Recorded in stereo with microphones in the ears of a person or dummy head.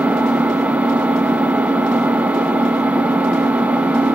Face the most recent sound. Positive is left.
turn(degrees=-5)  # may be behind; listen again after turning